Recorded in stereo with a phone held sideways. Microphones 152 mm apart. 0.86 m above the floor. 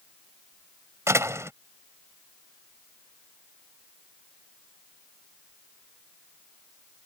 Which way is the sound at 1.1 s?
20° right (ahead or behind).